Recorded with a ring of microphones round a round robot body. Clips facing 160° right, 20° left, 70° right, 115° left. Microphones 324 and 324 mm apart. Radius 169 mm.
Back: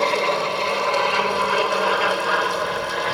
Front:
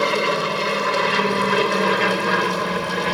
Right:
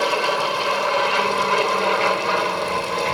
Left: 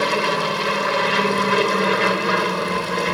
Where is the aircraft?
75° left; by 3.1 s 55° left.